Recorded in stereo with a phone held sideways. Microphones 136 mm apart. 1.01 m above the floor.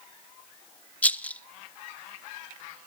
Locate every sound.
1.0 s a rattle: 10° left (ahead or behind), 0.7 m